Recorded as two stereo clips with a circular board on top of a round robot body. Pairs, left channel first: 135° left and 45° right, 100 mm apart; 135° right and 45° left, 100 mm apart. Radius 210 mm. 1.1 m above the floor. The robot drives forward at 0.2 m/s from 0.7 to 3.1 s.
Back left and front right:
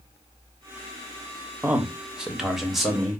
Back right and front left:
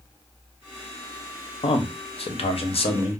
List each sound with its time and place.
1.6 s a man speaking: 120° right, 1.0 m; by 3.2 s 135° right, 1.2 m